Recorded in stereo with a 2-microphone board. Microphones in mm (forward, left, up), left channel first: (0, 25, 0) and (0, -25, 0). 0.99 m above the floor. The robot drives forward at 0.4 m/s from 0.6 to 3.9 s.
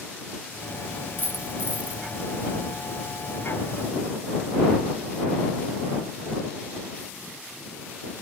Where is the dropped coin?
35° right (ahead or behind), 0.6 m; by 2.0 s 30° right (ahead or behind), 0.7 m.